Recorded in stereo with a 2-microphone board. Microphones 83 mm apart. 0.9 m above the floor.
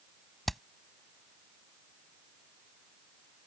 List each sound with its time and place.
0.5 s hammering: centre (ahead or behind)